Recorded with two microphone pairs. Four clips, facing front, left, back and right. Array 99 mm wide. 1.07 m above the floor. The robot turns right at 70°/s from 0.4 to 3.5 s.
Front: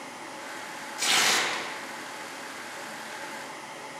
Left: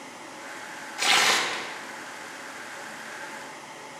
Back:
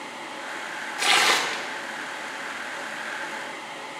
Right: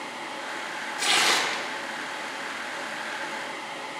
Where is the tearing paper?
150° left, 0.6 m; by 1.6 s 160° right, 0.6 m.